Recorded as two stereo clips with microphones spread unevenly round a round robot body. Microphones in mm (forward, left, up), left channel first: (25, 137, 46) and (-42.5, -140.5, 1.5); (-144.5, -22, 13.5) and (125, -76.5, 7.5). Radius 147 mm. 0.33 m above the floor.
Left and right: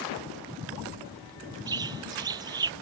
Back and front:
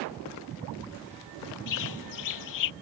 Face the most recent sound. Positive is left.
turn(degrees=180)